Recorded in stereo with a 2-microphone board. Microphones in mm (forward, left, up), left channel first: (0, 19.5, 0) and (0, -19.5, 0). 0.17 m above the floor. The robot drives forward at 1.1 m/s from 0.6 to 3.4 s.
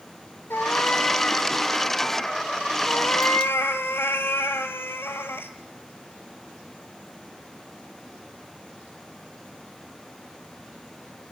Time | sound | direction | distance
0.5 | a cat meowing | 70° left (ahead or behind) | 0.6 m
2.9 | a cat meowing | 55° left (ahead or behind) | 1.7 m